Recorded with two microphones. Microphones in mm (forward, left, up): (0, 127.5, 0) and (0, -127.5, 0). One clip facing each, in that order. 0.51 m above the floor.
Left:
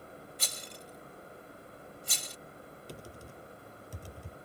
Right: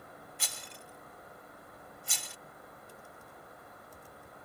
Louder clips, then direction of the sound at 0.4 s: Left 3 dB; 40° left (ahead or behind).